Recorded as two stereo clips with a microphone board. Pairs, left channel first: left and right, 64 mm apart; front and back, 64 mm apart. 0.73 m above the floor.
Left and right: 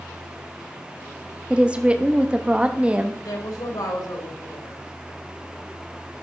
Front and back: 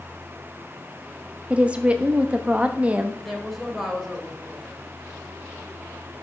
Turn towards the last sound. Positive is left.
turn(degrees=90)